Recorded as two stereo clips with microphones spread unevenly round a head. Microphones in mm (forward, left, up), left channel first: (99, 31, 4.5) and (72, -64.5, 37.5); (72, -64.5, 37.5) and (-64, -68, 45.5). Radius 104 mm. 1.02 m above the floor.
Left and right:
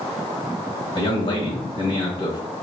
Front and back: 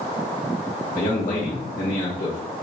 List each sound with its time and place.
0.9 s a man speaking: 40° left, 1.3 m